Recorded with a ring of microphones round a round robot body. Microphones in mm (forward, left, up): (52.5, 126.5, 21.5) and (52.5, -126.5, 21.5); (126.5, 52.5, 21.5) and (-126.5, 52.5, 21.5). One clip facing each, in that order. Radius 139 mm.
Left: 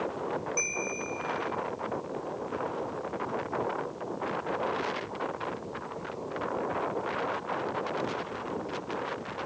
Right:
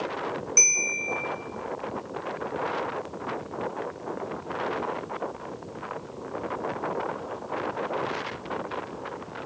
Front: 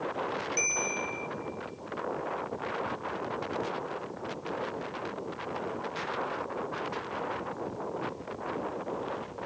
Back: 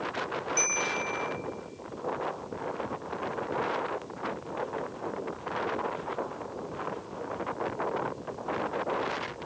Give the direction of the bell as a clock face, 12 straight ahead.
3 o'clock.